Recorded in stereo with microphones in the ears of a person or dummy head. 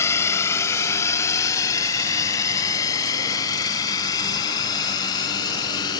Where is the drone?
15° left (ahead or behind); by 6.0 s 25° left (ahead or behind).